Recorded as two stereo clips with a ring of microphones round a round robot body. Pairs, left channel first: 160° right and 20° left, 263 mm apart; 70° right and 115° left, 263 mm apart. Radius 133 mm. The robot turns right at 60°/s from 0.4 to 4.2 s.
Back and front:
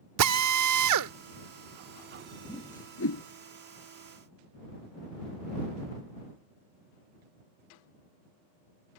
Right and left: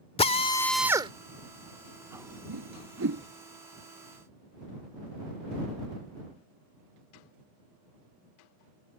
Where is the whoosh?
125° left; by 3.2 s 170° left.